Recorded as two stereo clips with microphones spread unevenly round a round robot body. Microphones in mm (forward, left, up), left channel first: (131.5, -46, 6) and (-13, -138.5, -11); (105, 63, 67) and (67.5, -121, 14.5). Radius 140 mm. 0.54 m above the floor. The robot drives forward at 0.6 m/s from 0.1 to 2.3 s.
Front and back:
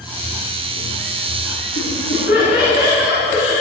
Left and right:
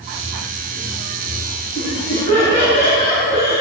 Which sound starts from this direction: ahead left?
Laughter, at 1.8 s.